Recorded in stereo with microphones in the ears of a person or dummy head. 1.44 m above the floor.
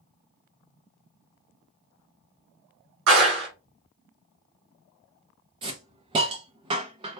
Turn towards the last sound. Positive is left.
turn(degrees=-25)  # may be behind; listen again after turning